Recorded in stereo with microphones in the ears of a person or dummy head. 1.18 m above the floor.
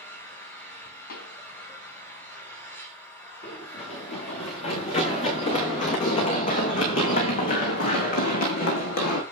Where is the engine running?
20° left (ahead or behind), 5 m.